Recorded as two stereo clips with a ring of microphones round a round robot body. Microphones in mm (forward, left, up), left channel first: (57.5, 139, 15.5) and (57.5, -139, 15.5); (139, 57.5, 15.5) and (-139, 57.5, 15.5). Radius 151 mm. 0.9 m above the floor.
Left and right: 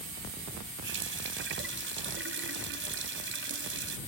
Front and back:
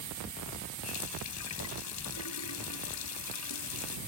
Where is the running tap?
40° right.